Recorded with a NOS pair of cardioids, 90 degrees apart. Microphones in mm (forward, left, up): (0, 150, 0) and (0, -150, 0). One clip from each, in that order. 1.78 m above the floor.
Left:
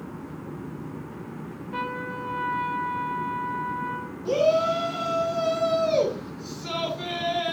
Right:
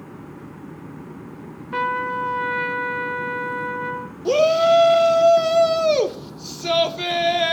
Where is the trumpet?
55° right, 1.6 m.